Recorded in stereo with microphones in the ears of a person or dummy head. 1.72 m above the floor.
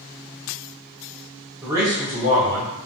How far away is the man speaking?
About 0.8 m.